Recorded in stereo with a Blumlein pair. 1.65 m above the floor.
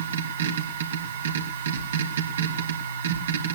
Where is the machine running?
65° right, 3 m.